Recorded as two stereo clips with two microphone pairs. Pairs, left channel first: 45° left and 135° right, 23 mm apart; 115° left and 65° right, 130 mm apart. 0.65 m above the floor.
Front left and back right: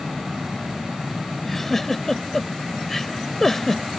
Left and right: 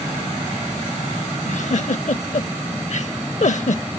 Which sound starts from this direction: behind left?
A giggle, at 1.4 s.